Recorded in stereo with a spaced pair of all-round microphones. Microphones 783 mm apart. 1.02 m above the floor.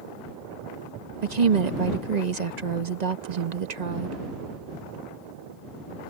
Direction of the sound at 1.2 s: 60° right (ahead or behind).